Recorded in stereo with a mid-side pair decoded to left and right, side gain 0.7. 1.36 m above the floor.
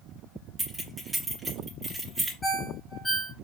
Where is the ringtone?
5° left, 1.1 m.